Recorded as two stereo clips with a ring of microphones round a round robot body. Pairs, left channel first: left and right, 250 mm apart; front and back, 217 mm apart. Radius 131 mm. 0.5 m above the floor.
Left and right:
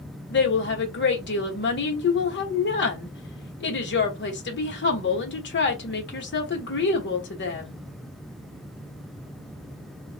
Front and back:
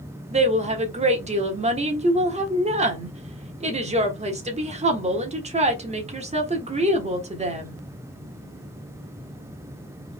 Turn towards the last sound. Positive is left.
turn(degrees=125)